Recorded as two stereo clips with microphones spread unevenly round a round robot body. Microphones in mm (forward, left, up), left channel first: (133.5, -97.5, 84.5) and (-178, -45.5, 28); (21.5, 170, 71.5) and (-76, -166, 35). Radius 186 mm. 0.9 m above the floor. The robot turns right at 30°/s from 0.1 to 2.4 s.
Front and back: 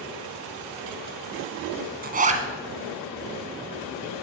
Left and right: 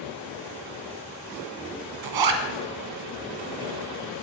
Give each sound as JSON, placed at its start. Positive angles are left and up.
{"t": 2.0, "sound": "a zipper", "azimuth_deg": -125, "distance_m": 1.3}